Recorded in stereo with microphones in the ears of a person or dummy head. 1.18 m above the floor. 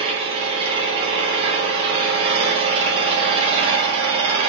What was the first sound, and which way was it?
An engine running, 30° right (ahead or behind).